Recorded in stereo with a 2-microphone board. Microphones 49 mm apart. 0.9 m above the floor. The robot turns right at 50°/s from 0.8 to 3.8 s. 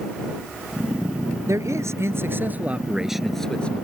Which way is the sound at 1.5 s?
85° right.